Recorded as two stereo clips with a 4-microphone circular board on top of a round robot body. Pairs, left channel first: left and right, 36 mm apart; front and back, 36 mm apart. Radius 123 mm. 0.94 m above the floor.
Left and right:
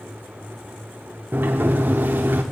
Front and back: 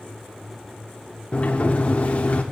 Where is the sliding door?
55° right, 0.7 m.